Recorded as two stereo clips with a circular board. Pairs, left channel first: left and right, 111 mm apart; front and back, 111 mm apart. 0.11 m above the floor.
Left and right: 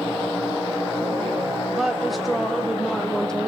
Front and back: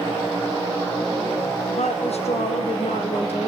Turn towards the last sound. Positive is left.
turn(degrees=5)